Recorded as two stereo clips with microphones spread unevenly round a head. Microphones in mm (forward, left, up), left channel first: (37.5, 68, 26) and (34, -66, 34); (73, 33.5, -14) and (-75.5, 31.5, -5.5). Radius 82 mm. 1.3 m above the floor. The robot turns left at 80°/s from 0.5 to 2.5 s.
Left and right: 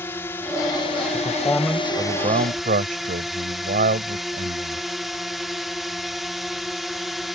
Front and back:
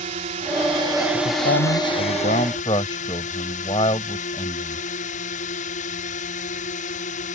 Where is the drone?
160° left; by 7.4 s straight ahead.